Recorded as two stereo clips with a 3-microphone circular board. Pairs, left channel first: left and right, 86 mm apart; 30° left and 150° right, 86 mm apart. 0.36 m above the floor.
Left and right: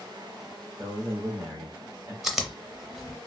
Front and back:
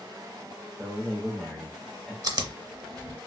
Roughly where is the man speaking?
Ahead right.